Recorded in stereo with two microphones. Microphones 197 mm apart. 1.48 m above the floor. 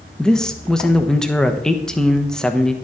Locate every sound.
0.2 s a man speaking: 5° left (ahead or behind), 1.2 m